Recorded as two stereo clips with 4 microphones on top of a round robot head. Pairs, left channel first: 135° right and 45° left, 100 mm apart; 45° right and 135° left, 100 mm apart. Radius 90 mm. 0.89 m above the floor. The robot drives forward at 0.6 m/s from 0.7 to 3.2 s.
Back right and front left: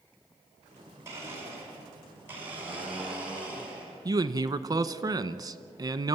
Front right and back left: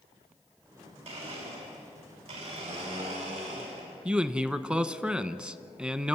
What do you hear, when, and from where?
1.1 s a blender: 110° left, 5 m; by 4.0 s 120° left, 5.5 m
4.0 s a man speaking: 60° left, 1.0 m